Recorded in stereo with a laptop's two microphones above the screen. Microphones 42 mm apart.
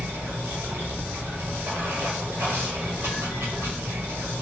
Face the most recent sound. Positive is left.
turn(degrees=-75)  # may be behind; listen again after turning